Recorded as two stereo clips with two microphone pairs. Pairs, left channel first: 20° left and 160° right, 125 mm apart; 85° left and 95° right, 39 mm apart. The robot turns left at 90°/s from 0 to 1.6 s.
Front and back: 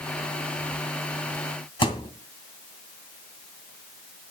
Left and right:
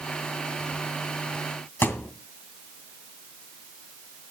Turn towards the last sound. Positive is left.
turn(degrees=65)